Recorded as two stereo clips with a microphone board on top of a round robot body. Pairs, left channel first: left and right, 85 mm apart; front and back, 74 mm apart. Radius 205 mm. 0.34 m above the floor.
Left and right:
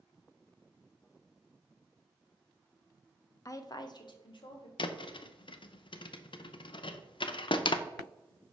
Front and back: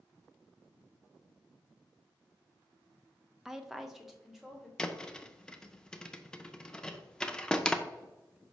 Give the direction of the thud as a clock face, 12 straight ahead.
9 o'clock.